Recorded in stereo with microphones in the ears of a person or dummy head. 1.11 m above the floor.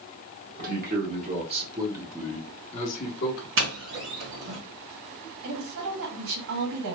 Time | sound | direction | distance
0.6 | a man speaking | 50° right (ahead or behind) | 1.5 m
3.6 | a doorbell | 60° right (ahead or behind) | 1.1 m
5.4 | a woman speaking | 80° right | 1.5 m